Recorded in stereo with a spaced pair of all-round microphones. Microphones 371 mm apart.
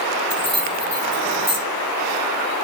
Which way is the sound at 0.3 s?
70° left (ahead or behind).